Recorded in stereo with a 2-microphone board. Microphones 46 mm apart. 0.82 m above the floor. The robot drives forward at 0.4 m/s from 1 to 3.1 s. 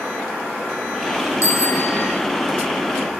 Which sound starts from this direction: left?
A bicycle bell, at 1.4 s.